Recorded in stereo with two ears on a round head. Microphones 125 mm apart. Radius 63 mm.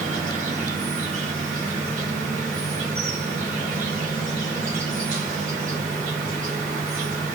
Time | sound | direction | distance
0.0 | an insect | 60° right (ahead or behind) | 1.6 m